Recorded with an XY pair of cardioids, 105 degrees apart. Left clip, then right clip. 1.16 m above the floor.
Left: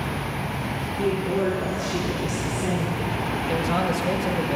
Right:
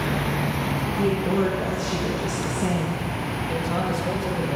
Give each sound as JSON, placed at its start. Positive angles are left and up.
{"t": 1.0, "sound": "a woman speaking", "azimuth_deg": -40, "distance_m": 1.0}
{"t": 3.5, "sound": "a man speaking", "azimuth_deg": 25, "distance_m": 1.1}